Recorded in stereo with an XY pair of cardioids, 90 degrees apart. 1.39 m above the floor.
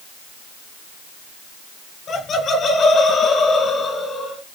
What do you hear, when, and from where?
2.1 s laughter: 55° left, 5 m; by 4.4 s 45° left, 7.5 m